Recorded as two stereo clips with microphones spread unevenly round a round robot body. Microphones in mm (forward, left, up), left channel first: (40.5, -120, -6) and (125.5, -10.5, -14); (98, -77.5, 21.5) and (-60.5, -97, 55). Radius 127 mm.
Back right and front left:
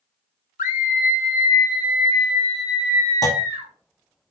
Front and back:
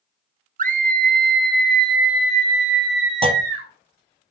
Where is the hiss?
I don't hear a hiss.